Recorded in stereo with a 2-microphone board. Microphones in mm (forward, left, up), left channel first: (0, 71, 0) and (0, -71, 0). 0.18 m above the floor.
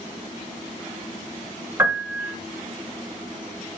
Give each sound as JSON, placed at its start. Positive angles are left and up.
{"t": 1.8, "sound": "a piano", "side_deg": -20, "distance_m": 1.1}